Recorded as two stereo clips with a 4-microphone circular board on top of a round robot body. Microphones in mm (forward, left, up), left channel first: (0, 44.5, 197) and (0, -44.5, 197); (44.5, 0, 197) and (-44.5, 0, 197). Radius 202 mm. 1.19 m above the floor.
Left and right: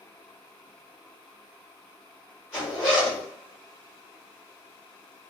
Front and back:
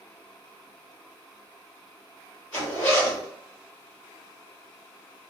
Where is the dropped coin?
No dropped coin in this recording.